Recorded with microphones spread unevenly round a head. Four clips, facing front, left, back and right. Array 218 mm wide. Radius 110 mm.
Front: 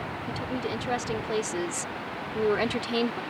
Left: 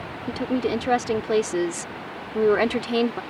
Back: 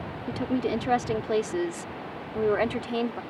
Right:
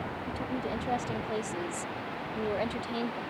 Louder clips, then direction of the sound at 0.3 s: Left 12 dB, back 6 dB; 110° left.